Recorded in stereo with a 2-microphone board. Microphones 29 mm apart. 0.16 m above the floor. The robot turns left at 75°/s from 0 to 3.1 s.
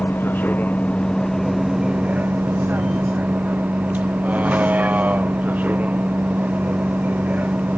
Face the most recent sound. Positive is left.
turn(degrees=-120)